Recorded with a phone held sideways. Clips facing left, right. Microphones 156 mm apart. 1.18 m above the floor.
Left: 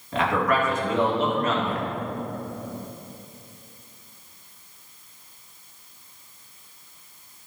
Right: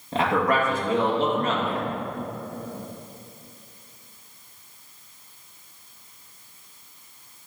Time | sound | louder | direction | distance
0.1 | a man speaking | right 1 dB | 35° right (ahead or behind) | 2 m